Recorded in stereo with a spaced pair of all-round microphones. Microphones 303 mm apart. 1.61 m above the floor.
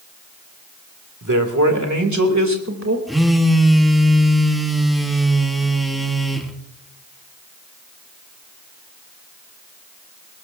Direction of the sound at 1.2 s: 85° right.